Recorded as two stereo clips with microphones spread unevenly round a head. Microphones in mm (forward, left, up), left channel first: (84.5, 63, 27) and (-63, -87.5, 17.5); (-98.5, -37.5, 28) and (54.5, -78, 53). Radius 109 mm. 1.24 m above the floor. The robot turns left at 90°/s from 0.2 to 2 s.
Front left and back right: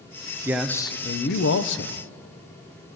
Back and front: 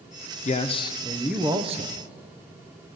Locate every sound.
0.5 s a man speaking: 150° left, 0.6 m; by 2.0 s 10° left, 0.6 m